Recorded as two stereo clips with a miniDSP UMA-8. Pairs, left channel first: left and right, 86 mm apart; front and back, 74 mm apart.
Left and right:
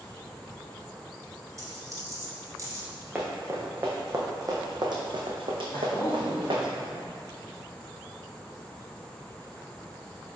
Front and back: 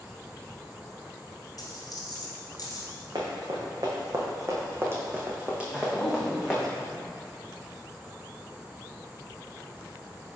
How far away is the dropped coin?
About 1.9 m.